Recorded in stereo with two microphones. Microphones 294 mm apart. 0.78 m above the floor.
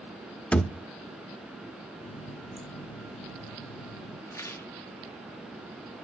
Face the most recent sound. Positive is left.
turn(degrees=10)  # may be behind; listen again after turning